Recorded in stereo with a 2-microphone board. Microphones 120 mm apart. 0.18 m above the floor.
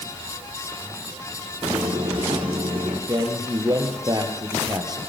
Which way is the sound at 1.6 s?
45° right (ahead or behind).